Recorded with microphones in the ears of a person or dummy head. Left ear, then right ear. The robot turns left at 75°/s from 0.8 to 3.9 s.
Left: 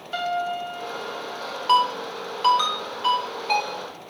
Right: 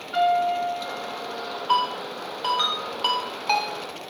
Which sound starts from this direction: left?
A ringtone, at 1.7 s.